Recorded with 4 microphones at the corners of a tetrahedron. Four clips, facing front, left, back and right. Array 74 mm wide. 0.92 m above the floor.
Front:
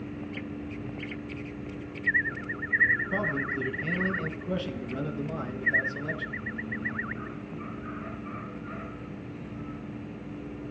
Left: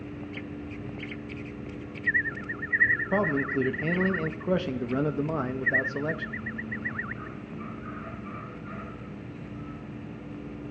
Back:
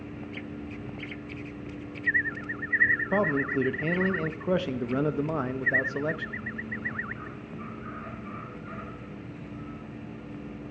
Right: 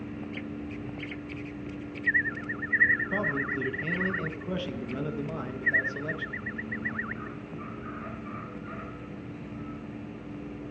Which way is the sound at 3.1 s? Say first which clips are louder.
Left 3 dB, back 4 dB; 140° left.